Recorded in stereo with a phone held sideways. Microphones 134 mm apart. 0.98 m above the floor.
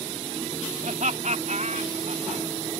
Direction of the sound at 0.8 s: 65° right (ahead or behind).